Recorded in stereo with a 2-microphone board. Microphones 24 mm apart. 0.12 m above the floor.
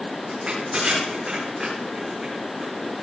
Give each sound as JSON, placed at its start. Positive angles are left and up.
{"t": 0.3, "sound": "crushing", "side_deg": -40, "distance_m": 7.5}